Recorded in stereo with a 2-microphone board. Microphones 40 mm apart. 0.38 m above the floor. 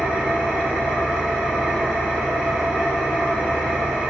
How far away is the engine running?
About 1.3 m.